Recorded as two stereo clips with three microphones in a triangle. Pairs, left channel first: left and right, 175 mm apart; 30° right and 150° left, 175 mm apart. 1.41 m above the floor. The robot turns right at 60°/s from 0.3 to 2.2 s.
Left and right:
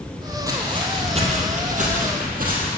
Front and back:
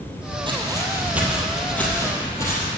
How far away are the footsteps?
About 2.5 m.